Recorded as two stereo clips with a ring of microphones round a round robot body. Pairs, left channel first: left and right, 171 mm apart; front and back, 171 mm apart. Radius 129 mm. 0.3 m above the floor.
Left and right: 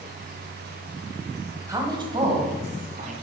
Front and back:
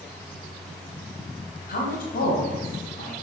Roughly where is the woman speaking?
Ahead.